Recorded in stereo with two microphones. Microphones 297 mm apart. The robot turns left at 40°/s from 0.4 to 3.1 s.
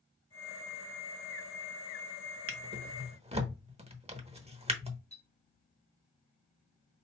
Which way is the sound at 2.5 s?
45° right (ahead or behind).